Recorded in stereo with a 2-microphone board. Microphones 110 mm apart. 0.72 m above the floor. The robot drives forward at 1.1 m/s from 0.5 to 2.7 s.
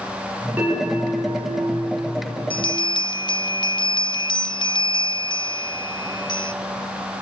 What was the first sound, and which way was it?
A bell, 15° right (ahead or behind).